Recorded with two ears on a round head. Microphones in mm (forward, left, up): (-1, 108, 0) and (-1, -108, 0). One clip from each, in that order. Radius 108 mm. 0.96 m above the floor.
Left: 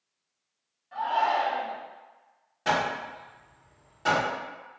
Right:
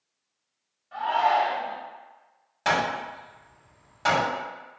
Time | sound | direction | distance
0.9 | a shout | 10° right (ahead or behind) | 1.6 m
2.6 | hammering | 40° right (ahead or behind) | 1.4 m